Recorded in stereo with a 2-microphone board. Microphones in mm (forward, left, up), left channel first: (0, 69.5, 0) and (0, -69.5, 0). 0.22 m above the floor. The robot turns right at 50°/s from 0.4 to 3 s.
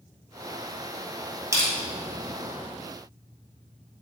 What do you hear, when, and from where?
1.5 s crushing: 20° right (ahead or behind), 1.4 m; by 1.7 s 30° right (ahead or behind), 1.4 m